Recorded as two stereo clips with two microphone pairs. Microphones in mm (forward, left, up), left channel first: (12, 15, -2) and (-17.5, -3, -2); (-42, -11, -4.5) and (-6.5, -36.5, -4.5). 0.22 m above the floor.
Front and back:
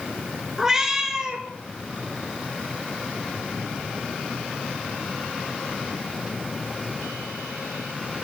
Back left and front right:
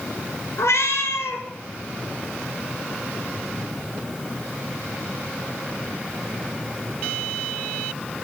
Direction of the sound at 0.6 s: 135° left.